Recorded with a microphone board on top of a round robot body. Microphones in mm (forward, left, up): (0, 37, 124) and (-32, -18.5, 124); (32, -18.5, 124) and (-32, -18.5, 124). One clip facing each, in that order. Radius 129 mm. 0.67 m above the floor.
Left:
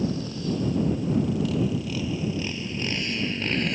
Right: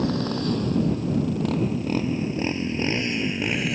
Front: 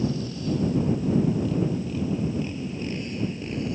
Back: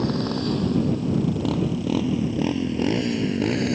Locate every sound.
0.0 s a motorcycle: 150° right; by 3.8 s 155° left